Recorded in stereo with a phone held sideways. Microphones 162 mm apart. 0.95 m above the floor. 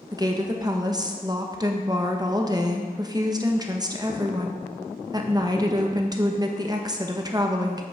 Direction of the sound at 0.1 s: 25° right (ahead or behind).